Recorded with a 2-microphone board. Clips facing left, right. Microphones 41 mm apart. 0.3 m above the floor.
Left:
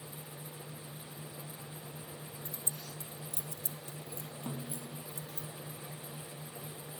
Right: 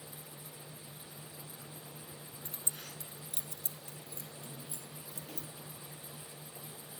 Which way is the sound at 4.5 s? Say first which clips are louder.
Left 7 dB; 75° left (ahead or behind).